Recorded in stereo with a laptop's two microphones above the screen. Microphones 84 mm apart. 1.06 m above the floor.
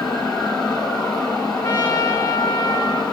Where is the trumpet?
25° left (ahead or behind), 7.5 m.